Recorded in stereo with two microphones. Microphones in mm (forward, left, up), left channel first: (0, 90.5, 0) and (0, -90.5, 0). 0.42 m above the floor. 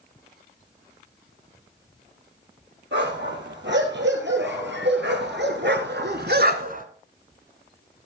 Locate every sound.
2.9 s a dog barking: 80° right, 3 m; by 6.9 s 45° right (ahead or behind), 0.9 m